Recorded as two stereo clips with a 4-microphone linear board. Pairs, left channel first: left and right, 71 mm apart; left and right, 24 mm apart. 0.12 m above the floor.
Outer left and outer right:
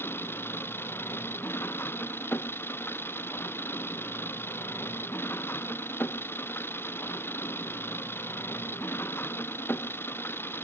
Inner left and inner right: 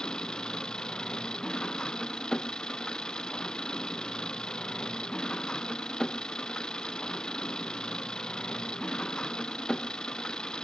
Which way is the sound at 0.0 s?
30° left (ahead or behind).